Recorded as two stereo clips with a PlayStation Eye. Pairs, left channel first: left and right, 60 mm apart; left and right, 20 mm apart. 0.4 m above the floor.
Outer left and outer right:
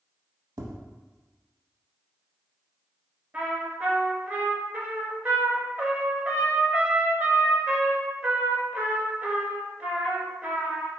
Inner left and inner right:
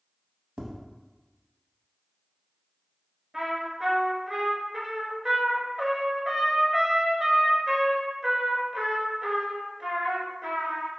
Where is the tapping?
85° right, 0.6 m.